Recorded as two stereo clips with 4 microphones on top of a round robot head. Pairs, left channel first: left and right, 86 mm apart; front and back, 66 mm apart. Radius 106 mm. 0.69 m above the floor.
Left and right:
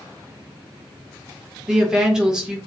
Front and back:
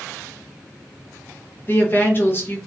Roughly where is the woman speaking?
Ahead.